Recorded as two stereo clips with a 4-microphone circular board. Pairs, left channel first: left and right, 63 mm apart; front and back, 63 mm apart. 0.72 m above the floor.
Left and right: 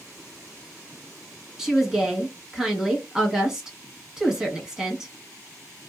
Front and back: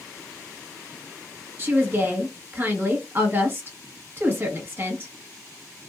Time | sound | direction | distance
1.6 | a woman speaking | 165° right | 1.1 m